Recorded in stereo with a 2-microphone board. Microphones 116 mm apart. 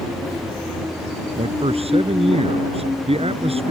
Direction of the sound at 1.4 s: 60° right (ahead or behind).